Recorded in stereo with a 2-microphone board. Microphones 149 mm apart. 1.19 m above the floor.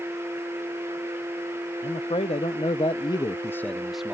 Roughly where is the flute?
I don't hear a flute.